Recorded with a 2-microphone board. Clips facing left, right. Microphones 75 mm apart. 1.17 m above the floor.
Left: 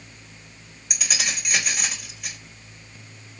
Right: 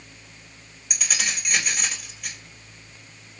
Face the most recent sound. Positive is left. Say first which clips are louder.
# even
turn(degrees=0)  # may be behind; listen again after turning